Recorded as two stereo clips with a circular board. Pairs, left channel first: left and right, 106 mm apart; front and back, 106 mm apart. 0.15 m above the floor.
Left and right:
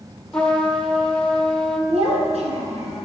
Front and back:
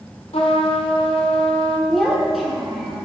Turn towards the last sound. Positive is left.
turn(degrees=-90)